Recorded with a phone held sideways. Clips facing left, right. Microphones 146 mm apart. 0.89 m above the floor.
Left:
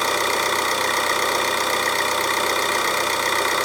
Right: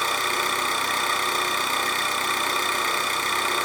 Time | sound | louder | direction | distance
0.0 | an engine running | left 5 dB | 75° left (ahead or behind) | 1.2 m